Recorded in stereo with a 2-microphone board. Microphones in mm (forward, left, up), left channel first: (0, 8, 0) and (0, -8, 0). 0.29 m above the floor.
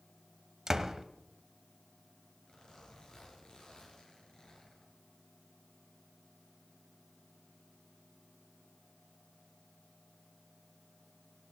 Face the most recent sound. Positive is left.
turn(degrees=60)  # may be behind; listen again after turning